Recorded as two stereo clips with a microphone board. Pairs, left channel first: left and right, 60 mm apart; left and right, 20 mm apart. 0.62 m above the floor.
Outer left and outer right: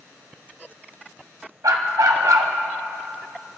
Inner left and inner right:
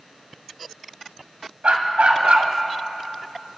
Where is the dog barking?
85° right, 1.3 m.